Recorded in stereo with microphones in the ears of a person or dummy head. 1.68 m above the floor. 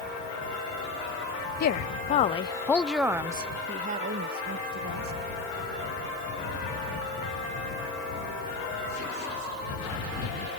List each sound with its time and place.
1.6 s a woman speaking: 55° left (ahead or behind); by 5.2 s 60° right (ahead or behind)